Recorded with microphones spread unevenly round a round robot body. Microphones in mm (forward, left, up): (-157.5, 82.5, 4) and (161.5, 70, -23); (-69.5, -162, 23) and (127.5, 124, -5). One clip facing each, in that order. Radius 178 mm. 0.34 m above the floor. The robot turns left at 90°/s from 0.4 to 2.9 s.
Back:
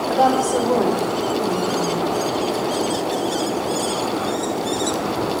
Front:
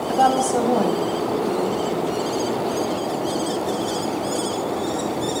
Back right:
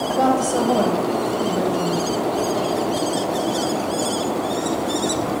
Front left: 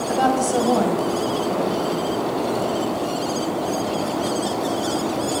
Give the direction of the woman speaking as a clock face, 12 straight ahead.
11 o'clock.